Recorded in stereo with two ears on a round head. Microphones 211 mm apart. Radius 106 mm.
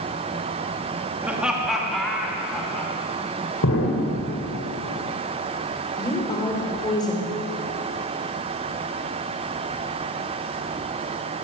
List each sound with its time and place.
1.2 s laughter: 5° right (ahead or behind), 2.5 m; by 2.9 s 5° left (ahead or behind), 5 m
3.6 s an explosion: 65° left (ahead or behind), 3 m
6.0 s a woman speaking: 20° left (ahead or behind), 4.5 m